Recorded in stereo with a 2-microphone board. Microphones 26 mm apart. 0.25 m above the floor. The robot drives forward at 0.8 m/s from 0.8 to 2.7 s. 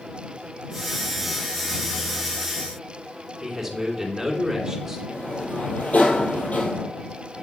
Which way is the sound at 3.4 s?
5° right (ahead or behind).